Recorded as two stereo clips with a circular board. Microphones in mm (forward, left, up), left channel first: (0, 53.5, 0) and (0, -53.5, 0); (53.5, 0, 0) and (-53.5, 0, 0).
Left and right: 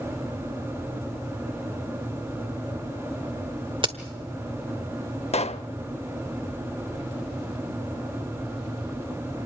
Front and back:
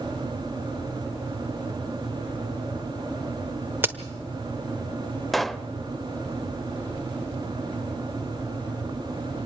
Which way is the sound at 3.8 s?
115° right.